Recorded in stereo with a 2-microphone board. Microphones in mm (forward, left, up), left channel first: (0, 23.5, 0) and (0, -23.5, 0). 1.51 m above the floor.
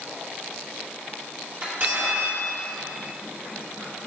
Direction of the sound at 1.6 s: 60° right (ahead or behind).